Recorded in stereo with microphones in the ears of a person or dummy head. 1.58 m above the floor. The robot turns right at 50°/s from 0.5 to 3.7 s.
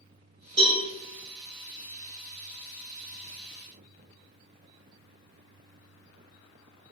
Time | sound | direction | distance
0.6 | a cowbell | 25° right (ahead or behind) | 1.2 m